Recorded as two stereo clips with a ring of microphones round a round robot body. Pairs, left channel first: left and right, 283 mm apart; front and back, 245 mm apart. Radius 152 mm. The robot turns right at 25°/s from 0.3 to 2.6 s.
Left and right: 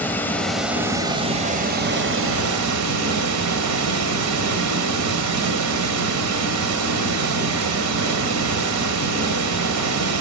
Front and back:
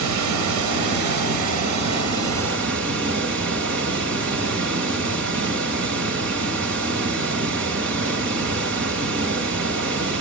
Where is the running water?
175° left, 1.4 m; by 10.2 s 130° right, 1.4 m.